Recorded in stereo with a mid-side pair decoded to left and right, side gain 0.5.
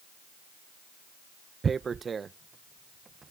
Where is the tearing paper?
35° right.